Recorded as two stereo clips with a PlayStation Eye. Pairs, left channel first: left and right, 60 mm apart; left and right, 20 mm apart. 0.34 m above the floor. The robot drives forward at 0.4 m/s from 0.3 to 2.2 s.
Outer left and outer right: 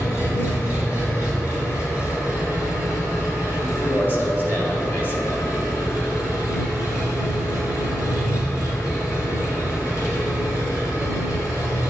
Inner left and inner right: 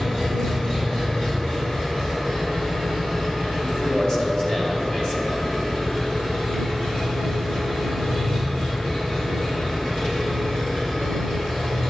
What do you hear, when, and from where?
0.0 s an engine running: 45° left (ahead or behind), 3 m; by 11.9 s 60° left (ahead or behind), 2.5 m
3.6 s a man speaking: 40° left (ahead or behind), 1.6 m